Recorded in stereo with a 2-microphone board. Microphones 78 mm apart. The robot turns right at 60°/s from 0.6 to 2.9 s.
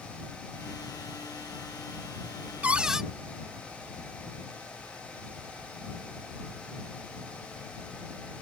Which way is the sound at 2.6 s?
20° right (ahead or behind).